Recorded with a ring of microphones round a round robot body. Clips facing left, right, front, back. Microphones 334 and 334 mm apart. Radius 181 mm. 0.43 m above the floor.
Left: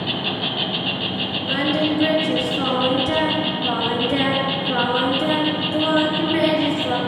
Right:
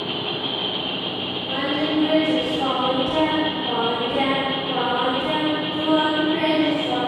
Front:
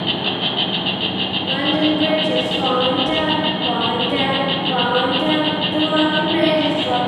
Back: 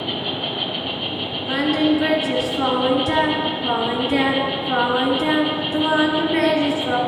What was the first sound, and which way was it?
An insect, 60° left.